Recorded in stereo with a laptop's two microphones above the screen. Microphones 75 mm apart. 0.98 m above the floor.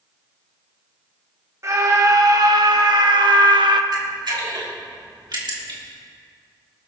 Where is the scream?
40° right (ahead or behind), 1.7 m; by 3.8 s 70° right (ahead or behind), 1.2 m.